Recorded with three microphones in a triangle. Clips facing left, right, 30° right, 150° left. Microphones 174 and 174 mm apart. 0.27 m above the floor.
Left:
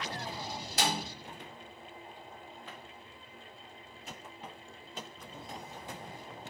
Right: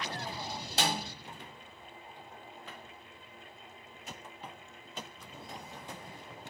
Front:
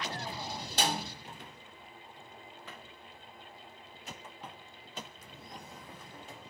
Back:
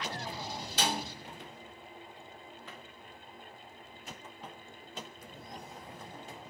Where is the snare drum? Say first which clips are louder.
Even, front 1 dB; 45° right, 1.2 m.